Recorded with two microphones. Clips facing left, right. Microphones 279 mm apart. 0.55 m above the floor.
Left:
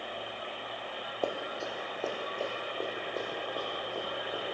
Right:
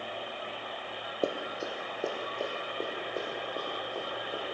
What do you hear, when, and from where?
1.2 s running footsteps: 25° right (ahead or behind), 1.0 m; by 4.5 s 5° right (ahead or behind), 5.5 m